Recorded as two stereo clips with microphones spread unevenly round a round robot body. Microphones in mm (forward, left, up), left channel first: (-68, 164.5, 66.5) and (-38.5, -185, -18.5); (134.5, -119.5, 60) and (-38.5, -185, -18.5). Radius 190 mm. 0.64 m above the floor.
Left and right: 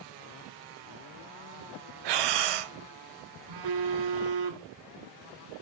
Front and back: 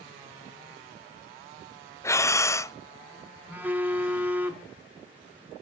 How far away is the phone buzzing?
About 1.1 m.